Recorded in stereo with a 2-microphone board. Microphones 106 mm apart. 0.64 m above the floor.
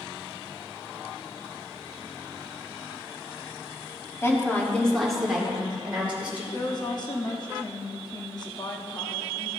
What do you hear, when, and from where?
4.2 s a woman speaking: 25° left (ahead or behind), 1.6 m; by 6.4 s 15° right (ahead or behind), 3.5 m
6.5 s a woman speaking: 40° left (ahead or behind), 0.9 m